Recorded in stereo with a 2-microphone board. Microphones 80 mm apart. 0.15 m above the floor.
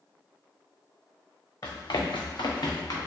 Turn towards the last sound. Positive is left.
turn(degrees=45)  # may be behind; listen again after turning